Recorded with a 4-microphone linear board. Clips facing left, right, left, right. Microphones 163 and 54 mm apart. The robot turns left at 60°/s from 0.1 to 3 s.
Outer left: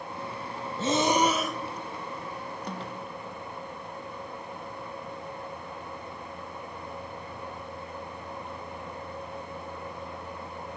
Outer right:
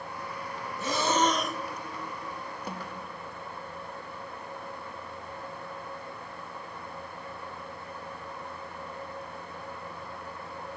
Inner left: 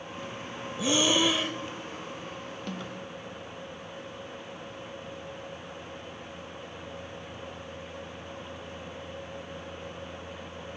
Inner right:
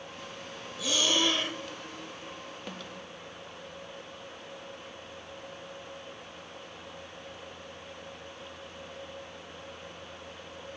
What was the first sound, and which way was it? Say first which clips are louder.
Breathing: outer left 3 dB, inner left 3 dB; 40° left.